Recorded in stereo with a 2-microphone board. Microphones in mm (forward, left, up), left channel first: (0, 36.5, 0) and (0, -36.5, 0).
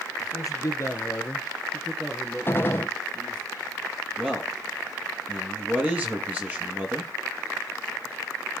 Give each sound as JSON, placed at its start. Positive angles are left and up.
{"t": 0.2, "sound": "a man speaking", "side_deg": 55, "distance_m": 2.0}
{"t": 2.5, "sound": "a gunshot", "side_deg": 30, "distance_m": 1.2}
{"t": 4.2, "sound": "a man speaking", "side_deg": -20, "distance_m": 3.0}